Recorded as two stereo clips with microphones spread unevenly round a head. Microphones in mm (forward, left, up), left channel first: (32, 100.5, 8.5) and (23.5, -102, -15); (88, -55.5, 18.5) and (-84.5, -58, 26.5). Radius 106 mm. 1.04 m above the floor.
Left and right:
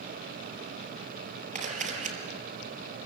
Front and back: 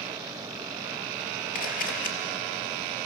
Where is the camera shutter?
35° right, 5 m.